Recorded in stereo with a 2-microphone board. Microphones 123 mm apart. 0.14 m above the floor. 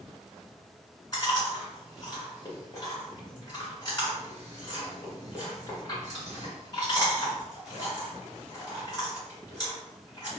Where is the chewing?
30° left (ahead or behind), 1.9 m.